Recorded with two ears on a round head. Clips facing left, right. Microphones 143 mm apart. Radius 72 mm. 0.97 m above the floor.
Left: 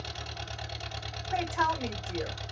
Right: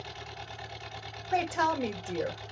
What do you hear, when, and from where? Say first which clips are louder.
0.0 s an engine running: left 1 dB; 55° left (ahead or behind), 1.5 m
1.3 s a woman speaking: right 2 dB; 45° right (ahead or behind), 1.6 m